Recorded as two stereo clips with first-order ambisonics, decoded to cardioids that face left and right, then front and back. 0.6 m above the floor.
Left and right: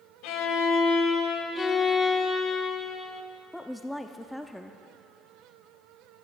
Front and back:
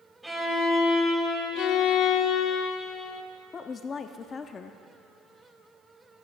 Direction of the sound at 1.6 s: 25° left.